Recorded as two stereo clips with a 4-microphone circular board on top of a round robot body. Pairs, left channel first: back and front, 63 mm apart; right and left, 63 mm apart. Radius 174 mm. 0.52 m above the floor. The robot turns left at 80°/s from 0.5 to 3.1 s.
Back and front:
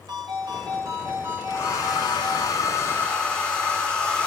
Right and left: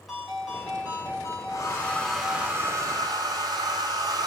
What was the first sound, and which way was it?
A ringtone, straight ahead.